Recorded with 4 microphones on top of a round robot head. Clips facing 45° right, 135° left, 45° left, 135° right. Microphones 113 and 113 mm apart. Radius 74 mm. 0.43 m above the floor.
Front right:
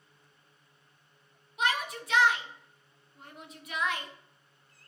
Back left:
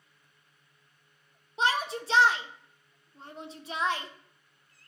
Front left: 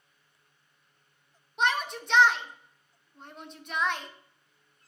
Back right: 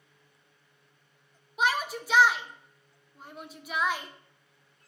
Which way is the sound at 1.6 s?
145° left.